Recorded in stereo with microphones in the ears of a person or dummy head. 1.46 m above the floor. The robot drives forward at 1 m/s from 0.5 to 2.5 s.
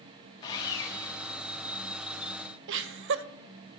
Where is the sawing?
25° left (ahead or behind), 1.4 m; by 1.3 s 15° left (ahead or behind), 2 m.